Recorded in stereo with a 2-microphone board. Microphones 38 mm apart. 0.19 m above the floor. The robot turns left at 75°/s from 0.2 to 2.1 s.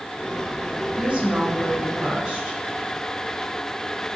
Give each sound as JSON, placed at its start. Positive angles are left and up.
{"t": 0.9, "sound": "a woman speaking", "azimuth_deg": -65, "distance_m": 1.2}